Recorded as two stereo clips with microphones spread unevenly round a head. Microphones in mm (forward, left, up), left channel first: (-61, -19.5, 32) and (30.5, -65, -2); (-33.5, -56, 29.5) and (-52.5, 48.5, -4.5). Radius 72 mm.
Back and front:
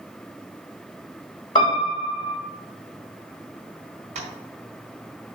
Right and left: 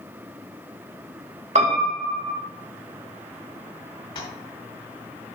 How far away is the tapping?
About 4 m.